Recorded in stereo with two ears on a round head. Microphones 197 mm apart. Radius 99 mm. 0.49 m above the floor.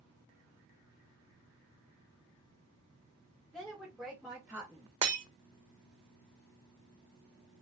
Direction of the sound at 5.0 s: 25° right (ahead or behind).